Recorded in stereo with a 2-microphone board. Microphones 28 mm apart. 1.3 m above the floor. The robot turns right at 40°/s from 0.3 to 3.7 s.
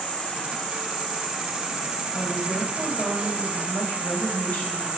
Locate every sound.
0.0 s an insect: 135° left, 0.9 m; by 5.0 s 90° right, 0.9 m
2.1 s a woman speaking: 40° left, 0.8 m; by 4.9 s 105° left, 0.8 m